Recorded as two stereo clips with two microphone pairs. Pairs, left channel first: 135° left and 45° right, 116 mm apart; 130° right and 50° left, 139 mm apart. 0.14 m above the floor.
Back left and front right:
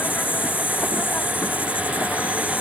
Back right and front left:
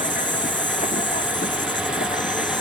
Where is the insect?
150° right.